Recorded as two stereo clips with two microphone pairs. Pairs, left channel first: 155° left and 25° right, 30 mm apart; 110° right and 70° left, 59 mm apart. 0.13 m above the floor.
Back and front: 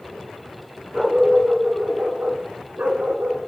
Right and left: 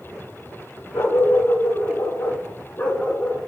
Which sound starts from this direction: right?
A dog barking, at 0.9 s.